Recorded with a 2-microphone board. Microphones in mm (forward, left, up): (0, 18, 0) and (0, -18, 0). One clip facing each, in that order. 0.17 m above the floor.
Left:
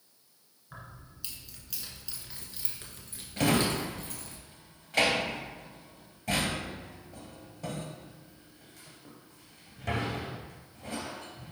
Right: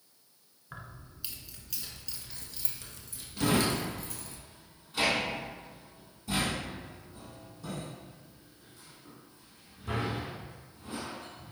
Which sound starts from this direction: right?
Keys jangling, at 0.7 s.